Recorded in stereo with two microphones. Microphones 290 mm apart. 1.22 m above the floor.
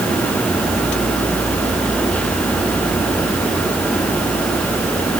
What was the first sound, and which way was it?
Only background noise.